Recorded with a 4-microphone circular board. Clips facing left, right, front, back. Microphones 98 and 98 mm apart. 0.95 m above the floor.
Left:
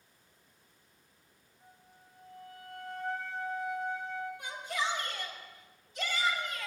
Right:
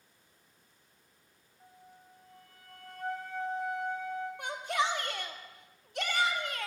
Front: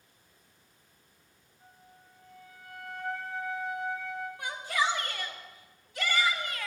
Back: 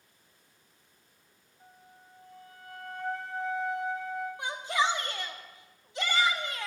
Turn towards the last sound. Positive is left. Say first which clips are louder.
# right 7 dB, back 1 dB
turn(degrees=-115)